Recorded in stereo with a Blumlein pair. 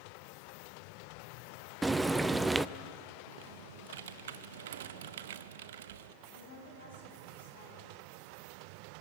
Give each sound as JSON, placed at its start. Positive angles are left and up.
{"t": 1.8, "sound": "frying", "azimuth_deg": -5, "distance_m": 0.6}
{"t": 3.3, "sound": "typing on a keyboard", "azimuth_deg": -60, "distance_m": 0.7}
{"t": 6.2, "sound": "a woman speaking", "azimuth_deg": 65, "distance_m": 9.5}